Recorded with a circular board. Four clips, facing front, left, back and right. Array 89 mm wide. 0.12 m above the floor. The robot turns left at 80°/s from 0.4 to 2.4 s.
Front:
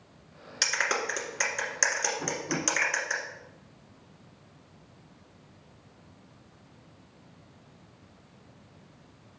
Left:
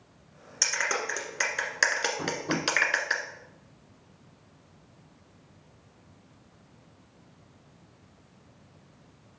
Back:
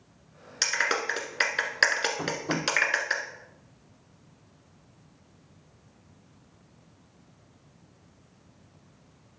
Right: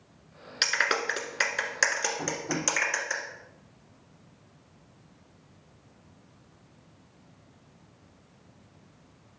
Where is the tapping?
155° left, 4 m; by 2.6 s 135° left, 4 m.